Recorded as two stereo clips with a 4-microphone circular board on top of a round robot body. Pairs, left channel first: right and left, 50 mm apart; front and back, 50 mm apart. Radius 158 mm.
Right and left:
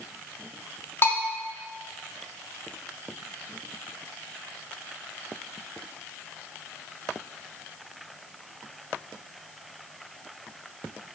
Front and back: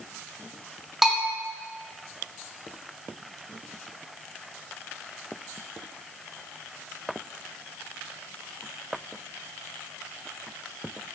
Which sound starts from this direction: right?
A bell, at 1.0 s.